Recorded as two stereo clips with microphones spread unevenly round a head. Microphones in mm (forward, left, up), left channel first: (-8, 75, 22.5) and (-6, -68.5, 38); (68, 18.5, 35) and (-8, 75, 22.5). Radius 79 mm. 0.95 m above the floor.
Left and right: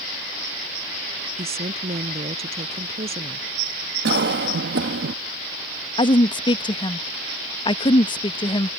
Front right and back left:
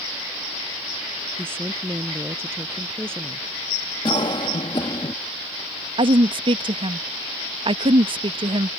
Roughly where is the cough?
Right.